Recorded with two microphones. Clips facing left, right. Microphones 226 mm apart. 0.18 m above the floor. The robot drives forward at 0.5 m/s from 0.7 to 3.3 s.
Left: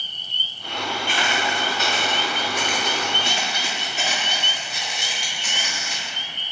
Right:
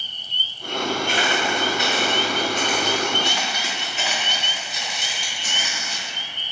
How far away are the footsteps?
About 0.8 m.